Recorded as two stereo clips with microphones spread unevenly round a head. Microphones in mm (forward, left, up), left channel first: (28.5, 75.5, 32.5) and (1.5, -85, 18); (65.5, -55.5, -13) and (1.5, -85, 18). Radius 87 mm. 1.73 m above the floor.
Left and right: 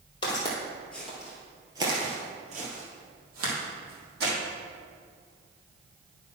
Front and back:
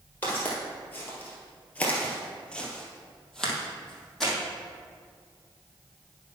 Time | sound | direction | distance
0.2 | footsteps | 115° left | 2 m